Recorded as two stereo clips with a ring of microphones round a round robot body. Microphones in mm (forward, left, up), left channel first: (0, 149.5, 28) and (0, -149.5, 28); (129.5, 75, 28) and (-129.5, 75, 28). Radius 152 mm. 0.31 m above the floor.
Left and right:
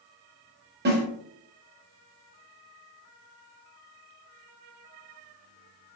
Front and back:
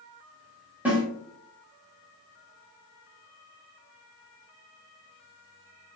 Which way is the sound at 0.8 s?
100° right.